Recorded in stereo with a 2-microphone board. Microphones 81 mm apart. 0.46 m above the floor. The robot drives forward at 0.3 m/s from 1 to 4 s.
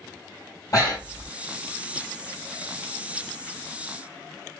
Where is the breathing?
45° left (ahead or behind), 3 m.